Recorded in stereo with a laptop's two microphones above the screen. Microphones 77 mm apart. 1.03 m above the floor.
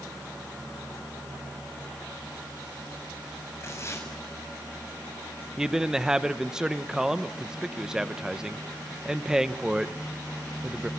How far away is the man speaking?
About 0.9 m.